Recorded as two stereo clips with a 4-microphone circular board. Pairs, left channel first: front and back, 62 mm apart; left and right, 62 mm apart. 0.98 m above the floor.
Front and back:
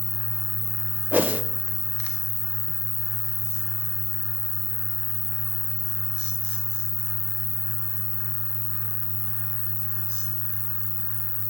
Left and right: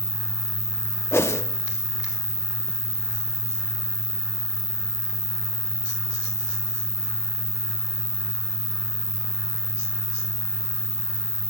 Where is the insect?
65° right, 1.8 m.